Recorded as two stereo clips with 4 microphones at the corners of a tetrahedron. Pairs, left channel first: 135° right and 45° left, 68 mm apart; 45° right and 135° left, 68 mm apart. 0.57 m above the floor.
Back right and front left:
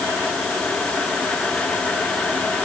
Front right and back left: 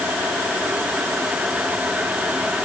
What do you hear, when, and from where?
Only background noise.